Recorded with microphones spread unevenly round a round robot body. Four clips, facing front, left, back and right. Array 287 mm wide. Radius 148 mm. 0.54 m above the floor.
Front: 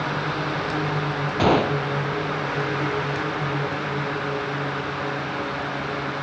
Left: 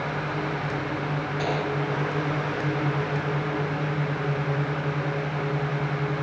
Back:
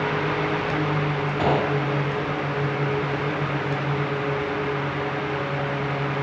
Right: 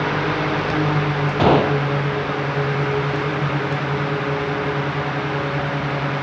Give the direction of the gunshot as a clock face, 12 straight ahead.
2 o'clock.